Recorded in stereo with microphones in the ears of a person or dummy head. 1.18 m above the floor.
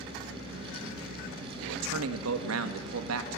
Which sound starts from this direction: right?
A man speaking, at 1.6 s.